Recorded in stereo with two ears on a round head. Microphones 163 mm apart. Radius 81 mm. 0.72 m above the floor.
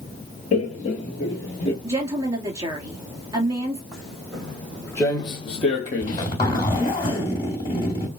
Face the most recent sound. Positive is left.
turn(degrees=25)  # may be behind; listen again after turning